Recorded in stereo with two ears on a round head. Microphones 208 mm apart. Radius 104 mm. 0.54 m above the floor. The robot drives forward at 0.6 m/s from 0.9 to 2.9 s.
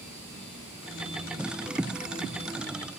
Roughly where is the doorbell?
No doorbell in this recording.